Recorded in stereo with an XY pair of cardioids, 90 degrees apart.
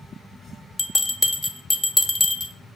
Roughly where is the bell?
Ahead.